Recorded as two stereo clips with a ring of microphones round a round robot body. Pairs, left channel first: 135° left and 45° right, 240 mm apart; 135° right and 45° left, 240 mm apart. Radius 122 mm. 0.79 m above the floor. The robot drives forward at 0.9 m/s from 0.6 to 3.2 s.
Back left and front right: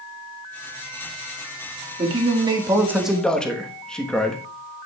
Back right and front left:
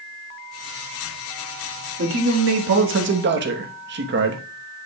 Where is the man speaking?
20° left, 1.8 m; by 4.4 s 50° left, 1.0 m.